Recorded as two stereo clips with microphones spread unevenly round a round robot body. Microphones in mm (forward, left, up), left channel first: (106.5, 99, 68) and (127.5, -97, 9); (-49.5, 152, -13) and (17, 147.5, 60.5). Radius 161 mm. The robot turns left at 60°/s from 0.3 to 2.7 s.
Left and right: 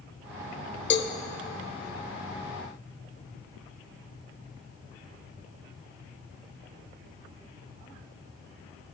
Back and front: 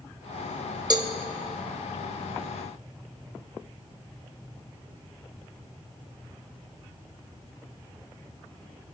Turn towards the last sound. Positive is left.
turn(degrees=-50)